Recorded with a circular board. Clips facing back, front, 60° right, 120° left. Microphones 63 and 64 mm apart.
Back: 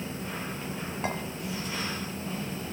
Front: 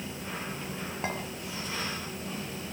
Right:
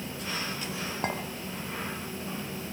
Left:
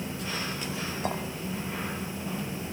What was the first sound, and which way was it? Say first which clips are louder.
A clink: back 2 dB, even; 90° right.